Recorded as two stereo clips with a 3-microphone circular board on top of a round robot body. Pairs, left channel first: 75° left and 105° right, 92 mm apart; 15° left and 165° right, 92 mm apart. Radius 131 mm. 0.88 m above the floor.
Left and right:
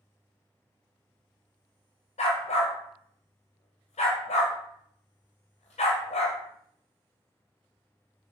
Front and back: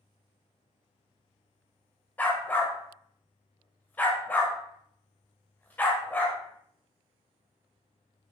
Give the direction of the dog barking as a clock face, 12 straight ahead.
9 o'clock.